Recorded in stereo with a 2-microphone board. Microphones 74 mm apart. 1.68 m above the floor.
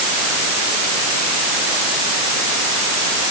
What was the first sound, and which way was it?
Only background noise.